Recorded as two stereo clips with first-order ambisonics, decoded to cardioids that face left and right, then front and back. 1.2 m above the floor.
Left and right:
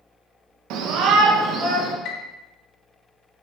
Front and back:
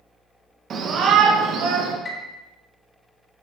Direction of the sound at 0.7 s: 120° right.